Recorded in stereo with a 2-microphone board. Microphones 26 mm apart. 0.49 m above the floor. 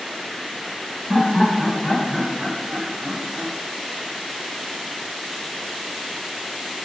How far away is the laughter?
About 1.6 m.